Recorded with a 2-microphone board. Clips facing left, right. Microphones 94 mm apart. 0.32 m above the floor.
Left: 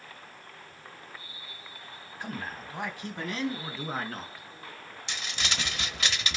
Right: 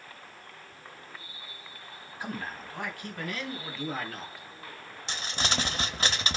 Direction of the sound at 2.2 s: 5° right (ahead or behind).